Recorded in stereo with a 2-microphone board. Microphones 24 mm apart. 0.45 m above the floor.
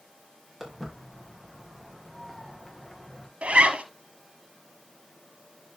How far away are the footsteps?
About 5.5 m.